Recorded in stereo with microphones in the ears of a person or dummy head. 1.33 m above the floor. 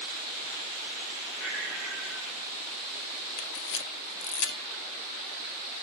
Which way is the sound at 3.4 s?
70° left (ahead or behind).